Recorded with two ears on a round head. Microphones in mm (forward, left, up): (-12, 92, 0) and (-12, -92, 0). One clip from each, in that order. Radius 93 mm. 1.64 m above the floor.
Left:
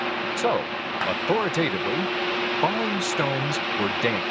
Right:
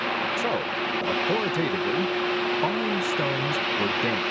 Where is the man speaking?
40° left (ahead or behind).